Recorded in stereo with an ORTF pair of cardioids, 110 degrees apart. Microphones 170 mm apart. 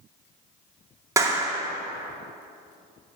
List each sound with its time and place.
1.2 s a clap: 20° right, 2.5 m